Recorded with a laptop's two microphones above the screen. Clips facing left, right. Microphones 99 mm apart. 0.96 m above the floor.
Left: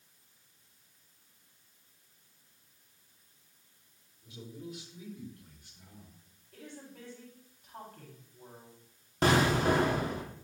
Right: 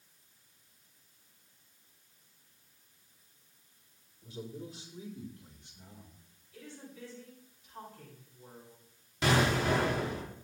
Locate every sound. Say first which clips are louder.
4.2 s a man speaking: right 2 dB; 40° right (ahead or behind), 3.5 m; by 6.2 s 20° right (ahead or behind), 3.5 m
6.5 s a woman speaking: left 1 dB; 60° left (ahead or behind), 6 m
9.2 s an explosion: left 2 dB; 45° left (ahead or behind), 2.5 m